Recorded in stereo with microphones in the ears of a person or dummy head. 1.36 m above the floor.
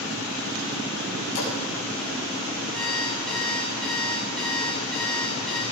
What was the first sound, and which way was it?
A splash, 55° left (ahead or behind).